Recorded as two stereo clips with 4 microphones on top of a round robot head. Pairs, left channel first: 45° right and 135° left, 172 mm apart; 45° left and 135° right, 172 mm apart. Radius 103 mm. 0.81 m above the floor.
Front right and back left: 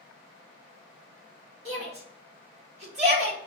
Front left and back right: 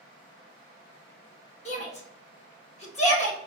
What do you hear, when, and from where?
1.6 s a shout: 90° left, 1.5 m